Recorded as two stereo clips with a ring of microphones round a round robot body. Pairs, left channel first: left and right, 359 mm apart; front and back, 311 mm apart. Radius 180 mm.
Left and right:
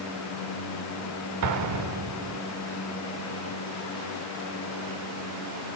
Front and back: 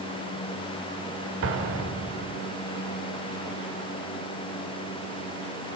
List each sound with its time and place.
1.4 s an explosion: 130° right, 1.3 m